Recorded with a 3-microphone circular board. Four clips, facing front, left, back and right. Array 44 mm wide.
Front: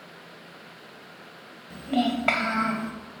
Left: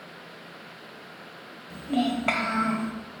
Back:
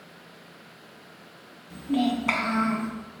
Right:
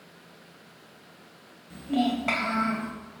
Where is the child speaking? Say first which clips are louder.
Even, even; 10° left, 2.5 m; by 2.9 s 20° left, 3 m.